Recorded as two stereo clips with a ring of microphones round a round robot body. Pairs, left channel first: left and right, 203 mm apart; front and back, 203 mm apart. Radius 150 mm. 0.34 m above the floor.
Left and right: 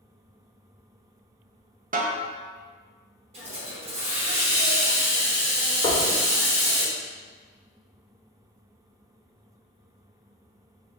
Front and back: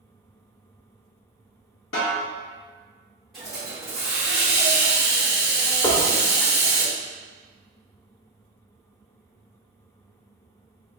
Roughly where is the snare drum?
Ahead right.